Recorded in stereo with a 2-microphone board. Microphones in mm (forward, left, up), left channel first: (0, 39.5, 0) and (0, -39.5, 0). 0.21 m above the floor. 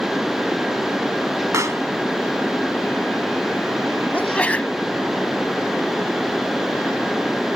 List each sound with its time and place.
1.5 s a pop: 45° right (ahead or behind)
4.1 s a sneeze: 20° left (ahead or behind)